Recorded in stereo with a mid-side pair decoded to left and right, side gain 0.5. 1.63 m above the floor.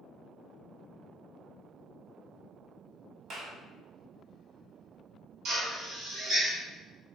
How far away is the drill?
About 3 m.